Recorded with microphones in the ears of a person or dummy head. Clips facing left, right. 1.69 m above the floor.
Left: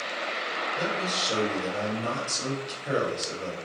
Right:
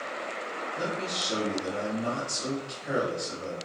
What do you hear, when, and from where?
0.8 s a man speaking: 55° left (ahead or behind), 1.0 m